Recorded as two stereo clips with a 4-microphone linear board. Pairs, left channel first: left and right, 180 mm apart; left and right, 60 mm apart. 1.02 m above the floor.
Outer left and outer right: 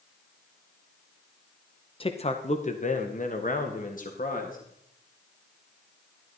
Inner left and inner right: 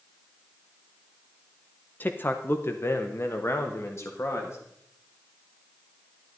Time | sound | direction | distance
2.0 | a man speaking | 30° left (ahead or behind) | 0.8 m